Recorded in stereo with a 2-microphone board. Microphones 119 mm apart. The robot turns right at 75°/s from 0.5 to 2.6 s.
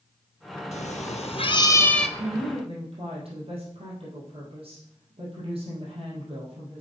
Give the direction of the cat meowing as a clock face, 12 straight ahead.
9 o'clock.